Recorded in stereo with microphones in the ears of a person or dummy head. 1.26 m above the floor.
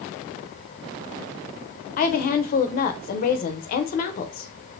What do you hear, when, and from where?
2.0 s a woman speaking: 45° left (ahead or behind), 0.5 m